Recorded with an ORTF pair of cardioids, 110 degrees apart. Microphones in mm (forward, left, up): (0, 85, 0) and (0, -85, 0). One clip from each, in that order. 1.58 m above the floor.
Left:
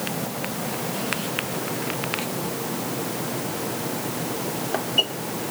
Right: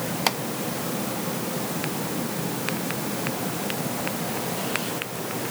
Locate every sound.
Only background noise.